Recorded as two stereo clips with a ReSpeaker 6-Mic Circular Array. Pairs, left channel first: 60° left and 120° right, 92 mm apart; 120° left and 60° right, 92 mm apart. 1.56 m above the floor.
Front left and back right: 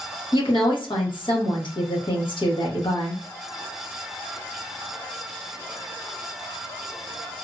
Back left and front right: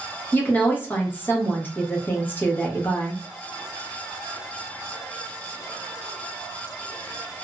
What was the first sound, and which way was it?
A woman speaking, 50° left.